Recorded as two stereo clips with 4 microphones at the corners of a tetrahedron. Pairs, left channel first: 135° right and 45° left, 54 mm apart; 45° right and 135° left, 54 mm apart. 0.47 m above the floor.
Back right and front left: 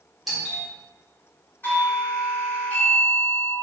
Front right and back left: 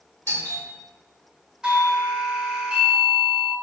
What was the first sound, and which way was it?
A doorbell, 45° right.